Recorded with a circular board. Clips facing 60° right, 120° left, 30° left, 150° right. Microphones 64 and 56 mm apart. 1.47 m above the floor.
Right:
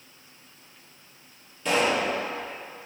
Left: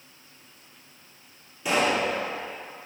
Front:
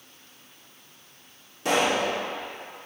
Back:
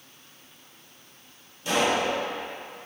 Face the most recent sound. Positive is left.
turn(degrees=40)